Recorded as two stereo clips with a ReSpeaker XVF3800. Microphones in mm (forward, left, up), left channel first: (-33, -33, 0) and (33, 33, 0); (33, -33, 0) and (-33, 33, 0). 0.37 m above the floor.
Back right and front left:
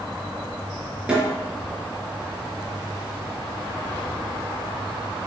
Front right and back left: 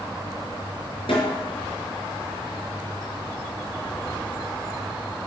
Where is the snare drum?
35° right, 4 m.